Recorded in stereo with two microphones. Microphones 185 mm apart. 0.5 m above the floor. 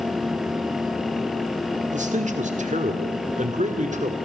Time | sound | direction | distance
1.9 | a man speaking | 40° right (ahead or behind) | 1.6 m